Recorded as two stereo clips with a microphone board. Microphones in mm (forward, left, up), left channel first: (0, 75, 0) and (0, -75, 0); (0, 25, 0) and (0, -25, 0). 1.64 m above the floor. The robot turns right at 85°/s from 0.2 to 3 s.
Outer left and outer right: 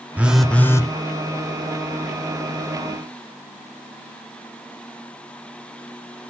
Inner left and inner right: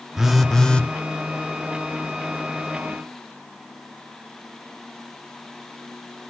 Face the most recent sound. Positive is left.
turn(degrees=-140)